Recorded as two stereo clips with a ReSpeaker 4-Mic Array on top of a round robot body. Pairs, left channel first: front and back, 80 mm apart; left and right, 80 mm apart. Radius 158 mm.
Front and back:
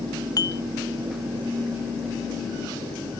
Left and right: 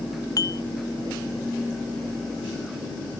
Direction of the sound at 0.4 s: 45° left.